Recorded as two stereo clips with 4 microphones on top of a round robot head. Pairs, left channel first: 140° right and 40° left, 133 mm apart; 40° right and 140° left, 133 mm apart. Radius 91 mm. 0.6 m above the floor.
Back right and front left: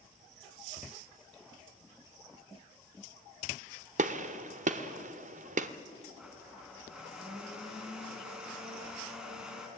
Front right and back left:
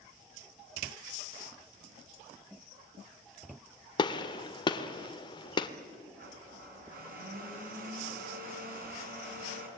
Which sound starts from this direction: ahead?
A gunshot, at 4.0 s.